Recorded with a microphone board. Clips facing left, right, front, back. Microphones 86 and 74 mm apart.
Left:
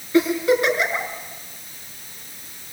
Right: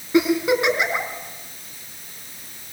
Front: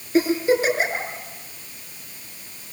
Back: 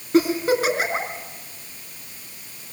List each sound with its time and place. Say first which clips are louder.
0.1 s a giggle: even, even; 155° right, 4 m